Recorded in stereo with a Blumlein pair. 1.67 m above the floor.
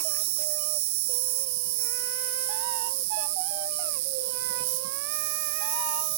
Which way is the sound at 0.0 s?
50° right.